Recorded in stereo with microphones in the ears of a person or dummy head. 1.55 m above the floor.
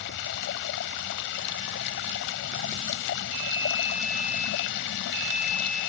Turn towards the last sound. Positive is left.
turn(degrees=65)  # may be behind; listen again after turning